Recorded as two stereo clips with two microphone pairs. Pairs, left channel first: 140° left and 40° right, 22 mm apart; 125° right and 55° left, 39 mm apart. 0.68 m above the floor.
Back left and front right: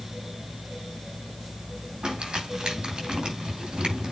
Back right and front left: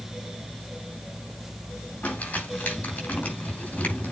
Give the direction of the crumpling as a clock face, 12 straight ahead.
3 o'clock.